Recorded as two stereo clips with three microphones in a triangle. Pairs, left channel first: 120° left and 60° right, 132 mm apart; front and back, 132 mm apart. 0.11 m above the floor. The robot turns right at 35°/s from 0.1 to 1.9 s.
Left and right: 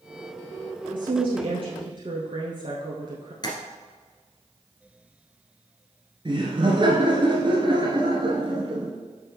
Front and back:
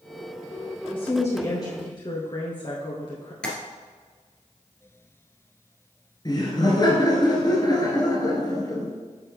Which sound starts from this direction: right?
A woman speaking, at 0.9 s.